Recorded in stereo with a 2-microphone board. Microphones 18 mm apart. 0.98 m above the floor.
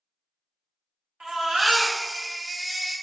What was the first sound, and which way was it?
A baby crying, 75° right (ahead or behind).